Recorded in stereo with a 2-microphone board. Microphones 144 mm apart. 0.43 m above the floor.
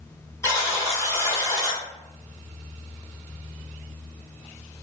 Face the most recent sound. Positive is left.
turn(degrees=20)  # may be behind; listen again after turning